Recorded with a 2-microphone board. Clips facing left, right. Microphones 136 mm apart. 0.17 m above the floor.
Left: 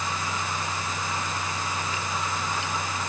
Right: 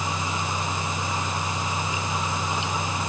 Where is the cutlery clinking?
No cutlery clinking in this recording.